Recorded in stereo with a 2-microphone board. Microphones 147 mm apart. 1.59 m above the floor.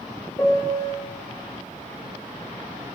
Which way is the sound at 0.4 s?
20° left (ahead or behind).